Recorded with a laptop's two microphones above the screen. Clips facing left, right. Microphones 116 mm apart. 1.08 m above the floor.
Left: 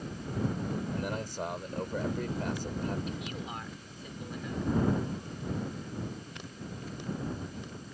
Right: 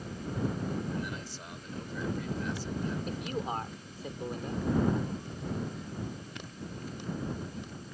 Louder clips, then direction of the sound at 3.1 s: Right 4 dB; 45° right (ahead or behind).